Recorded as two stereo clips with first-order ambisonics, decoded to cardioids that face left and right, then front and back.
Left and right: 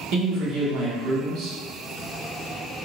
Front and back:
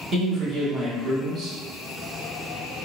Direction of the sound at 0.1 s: 120° right.